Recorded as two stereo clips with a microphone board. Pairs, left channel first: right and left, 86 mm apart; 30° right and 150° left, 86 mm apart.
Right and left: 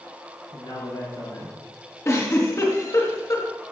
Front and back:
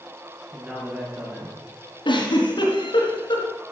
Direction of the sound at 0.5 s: 125° right.